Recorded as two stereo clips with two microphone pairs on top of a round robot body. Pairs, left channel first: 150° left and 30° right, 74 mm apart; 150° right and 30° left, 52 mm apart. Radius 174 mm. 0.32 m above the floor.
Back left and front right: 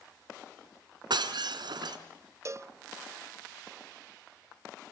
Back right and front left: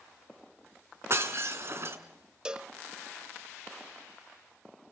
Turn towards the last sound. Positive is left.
turn(degrees=-45)